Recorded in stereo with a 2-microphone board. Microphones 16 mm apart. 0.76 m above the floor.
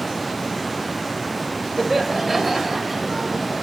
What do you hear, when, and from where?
1.8 s laughter: 5° right (ahead or behind), 3 m; by 3.6 s 20° right (ahead or behind), 3.5 m